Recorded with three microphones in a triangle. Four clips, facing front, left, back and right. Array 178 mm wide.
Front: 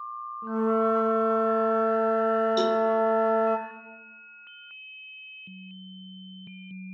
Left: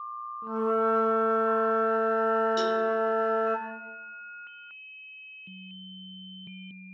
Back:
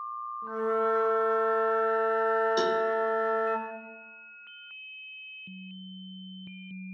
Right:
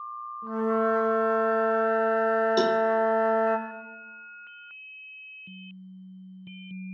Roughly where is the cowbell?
Right.